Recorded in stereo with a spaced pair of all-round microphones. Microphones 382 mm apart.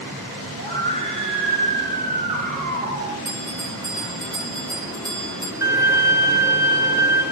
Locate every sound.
0.6 s a scream: 30° right (ahead or behind), 7 m; by 3.1 s 15° right (ahead or behind), 9 m
3.2 s a bell: centre (ahead or behind), 5 m
5.6 s a violin: 10° right (ahead or behind), 7 m